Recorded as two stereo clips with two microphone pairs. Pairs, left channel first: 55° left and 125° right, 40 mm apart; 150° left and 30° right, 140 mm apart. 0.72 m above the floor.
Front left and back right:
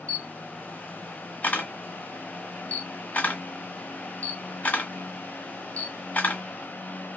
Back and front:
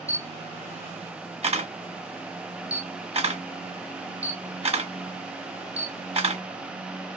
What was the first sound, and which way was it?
A camera shutter, 10° left.